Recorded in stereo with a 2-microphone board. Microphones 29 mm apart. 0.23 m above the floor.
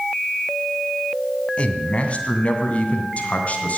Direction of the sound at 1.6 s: 40° left (ahead or behind).